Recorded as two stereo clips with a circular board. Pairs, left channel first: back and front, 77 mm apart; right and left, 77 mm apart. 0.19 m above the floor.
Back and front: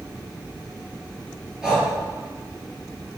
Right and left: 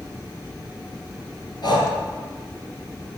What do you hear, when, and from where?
1.6 s breathing: 85° right, 4.5 m